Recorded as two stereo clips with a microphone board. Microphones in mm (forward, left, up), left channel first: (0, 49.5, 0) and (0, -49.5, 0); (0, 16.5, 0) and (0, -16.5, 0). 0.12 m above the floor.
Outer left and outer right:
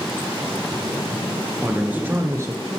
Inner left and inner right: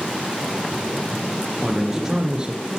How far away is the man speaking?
About 2.0 m.